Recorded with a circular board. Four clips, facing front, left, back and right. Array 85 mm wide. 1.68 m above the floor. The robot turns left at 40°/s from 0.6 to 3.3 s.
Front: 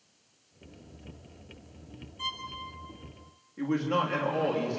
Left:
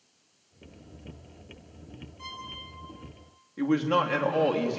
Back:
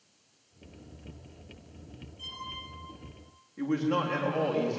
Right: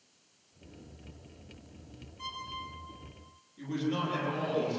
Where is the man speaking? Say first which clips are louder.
Left 8 dB, even; 85° left, 3.5 m.